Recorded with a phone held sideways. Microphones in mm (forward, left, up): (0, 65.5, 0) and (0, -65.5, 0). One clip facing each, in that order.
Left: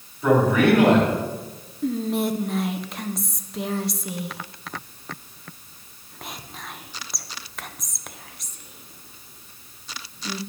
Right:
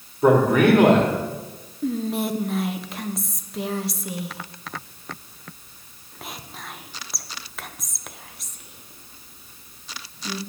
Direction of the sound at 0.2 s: 45° right (ahead or behind).